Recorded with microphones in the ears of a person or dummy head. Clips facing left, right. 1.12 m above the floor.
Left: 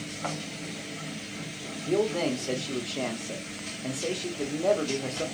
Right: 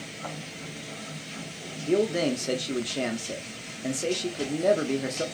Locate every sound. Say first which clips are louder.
1.9 s a man speaking: right 2 dB; 20° right (ahead or behind), 0.6 m